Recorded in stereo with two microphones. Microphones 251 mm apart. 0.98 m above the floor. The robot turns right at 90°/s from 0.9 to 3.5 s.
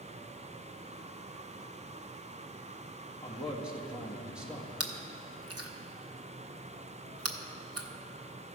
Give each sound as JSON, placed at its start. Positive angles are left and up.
{"t": 3.2, "sound": "a man speaking", "side_deg": 20, "distance_m": 1.6}
{"t": 4.8, "sound": "chewing", "side_deg": -70, "distance_m": 0.8}